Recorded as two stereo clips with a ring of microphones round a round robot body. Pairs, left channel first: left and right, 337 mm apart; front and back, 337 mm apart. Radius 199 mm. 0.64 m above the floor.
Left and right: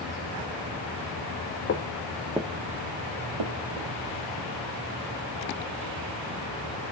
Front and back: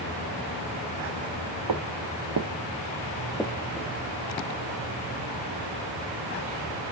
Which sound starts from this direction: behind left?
Footsteps, at 1.7 s.